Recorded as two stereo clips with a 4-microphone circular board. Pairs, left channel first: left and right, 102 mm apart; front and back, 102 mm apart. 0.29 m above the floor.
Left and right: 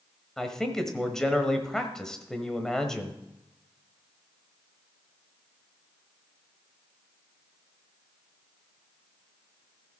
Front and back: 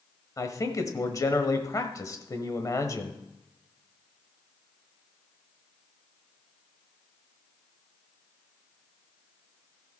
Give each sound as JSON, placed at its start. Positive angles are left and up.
{"t": 0.4, "sound": "a man speaking", "azimuth_deg": 10, "distance_m": 1.2}